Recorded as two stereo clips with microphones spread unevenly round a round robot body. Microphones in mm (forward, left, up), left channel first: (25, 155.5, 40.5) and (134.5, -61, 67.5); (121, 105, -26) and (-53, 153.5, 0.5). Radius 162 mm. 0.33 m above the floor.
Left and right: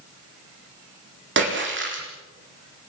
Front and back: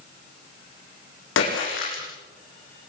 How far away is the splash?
About 9 m.